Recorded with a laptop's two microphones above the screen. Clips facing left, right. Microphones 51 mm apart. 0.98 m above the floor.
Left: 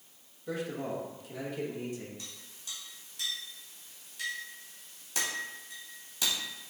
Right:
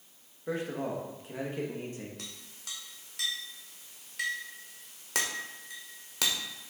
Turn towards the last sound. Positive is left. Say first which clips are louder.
# right 2 dB
turn(degrees=-80)